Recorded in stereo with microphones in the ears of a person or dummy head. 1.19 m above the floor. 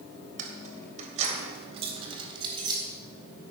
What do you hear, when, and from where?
0.4 s keys jangling: 50° right (ahead or behind), 3.5 m; by 2.8 s 25° right (ahead or behind), 4 m